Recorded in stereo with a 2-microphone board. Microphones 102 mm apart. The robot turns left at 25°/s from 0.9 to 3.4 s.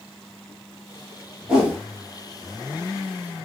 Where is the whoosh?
5° right (ahead or behind), 1.1 m; by 1.8 s 10° right (ahead or behind), 1.1 m.